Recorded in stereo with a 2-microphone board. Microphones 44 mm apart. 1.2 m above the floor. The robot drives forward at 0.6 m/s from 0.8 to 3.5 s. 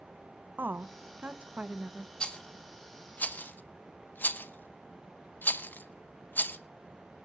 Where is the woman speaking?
50° right (ahead or behind), 0.7 m; by 2.1 s 25° right (ahead or behind), 1.4 m.